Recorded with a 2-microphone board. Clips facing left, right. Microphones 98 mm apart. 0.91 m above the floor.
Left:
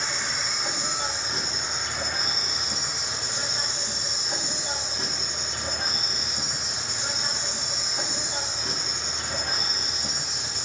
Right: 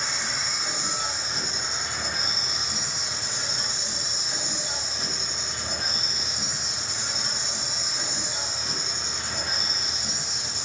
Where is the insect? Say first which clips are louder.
Left 1 dB; 45° left (ahead or behind), 2.5 m.